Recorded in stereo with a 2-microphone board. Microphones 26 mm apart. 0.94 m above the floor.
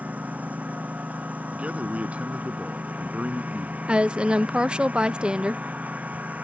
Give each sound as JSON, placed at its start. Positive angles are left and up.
{"t": 0.0, "sound": "a lawn mower", "side_deg": -80}
{"t": 1.5, "sound": "a man speaking", "side_deg": -65}
{"t": 3.9, "sound": "a woman speaking", "side_deg": -40}